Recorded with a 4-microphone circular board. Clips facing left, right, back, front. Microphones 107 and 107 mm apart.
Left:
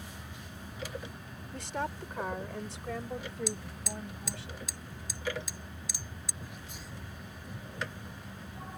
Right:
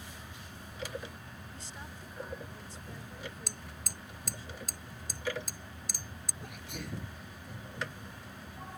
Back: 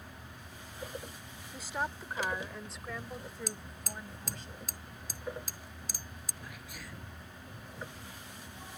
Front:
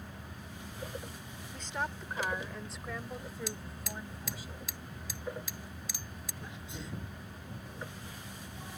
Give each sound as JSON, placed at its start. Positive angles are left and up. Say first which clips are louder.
{"t": 1.5, "sound": "a woman speaking", "louder": "left 16 dB, back 1 dB", "azimuth_deg": 100}
{"t": 3.5, "sound": "hammering", "louder": "left 8 dB, front 2 dB", "azimuth_deg": -130}
{"t": 6.4, "sound": "a sneeze", "louder": "right 3 dB, front 4 dB", "azimuth_deg": -65}